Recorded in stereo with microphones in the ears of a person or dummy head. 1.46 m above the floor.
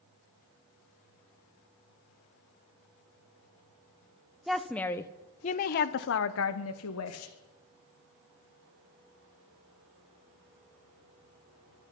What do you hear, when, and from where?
4.5 s a woman speaking: centre (ahead or behind), 1.0 m; by 7.3 s 80° left, 1.4 m